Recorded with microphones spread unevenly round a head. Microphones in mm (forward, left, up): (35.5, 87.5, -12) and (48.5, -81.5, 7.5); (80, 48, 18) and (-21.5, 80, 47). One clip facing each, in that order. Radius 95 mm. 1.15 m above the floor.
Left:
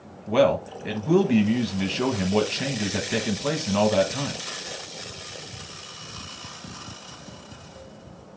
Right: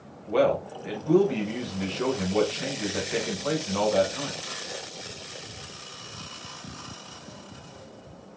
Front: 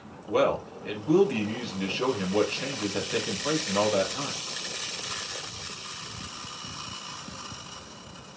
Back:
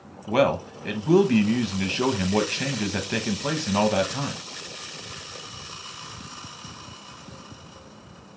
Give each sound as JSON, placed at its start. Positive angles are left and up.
{"t": 0.3, "sound": "a man speaking", "azimuth_deg": 140, "distance_m": 0.9}